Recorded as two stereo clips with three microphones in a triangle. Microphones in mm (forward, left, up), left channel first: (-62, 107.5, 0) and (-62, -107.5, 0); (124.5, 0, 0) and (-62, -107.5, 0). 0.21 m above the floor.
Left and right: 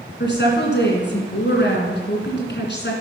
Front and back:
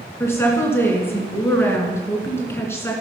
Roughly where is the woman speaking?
Left.